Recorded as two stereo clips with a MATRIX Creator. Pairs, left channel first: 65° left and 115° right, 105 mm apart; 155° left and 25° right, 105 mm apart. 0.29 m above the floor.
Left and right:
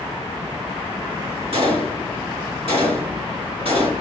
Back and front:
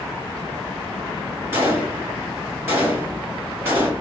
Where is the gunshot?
90° right, 1.2 m.